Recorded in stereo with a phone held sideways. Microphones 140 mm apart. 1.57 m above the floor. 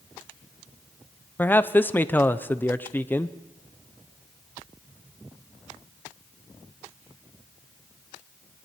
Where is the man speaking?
15° left (ahead or behind), 0.6 m.